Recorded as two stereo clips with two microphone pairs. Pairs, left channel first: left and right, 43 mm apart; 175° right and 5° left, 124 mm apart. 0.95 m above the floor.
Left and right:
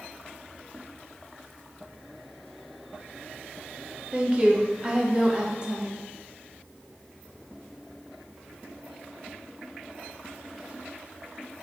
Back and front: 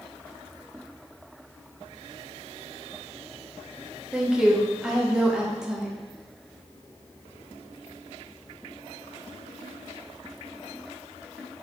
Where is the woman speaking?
75° right, 0.6 m.